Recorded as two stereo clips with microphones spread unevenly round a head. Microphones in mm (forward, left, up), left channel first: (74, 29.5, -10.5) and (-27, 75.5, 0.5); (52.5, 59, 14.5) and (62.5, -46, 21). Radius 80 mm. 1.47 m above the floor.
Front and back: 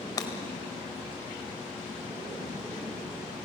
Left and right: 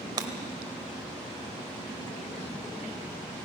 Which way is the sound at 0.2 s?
80° right.